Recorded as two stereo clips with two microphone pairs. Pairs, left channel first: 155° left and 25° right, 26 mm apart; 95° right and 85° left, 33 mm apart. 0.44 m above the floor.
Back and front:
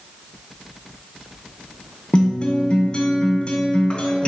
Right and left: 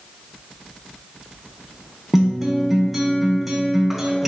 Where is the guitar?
165° left, 0.5 m.